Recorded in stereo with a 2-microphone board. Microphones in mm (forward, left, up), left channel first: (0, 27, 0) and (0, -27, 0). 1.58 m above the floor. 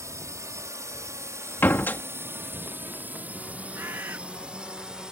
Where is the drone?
70° right (ahead or behind); by 5.1 s 15° right (ahead or behind).